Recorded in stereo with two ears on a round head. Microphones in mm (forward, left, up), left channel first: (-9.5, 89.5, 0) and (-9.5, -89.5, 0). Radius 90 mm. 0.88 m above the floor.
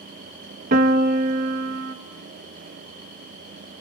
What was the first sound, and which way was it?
A piano, 45° right (ahead or behind).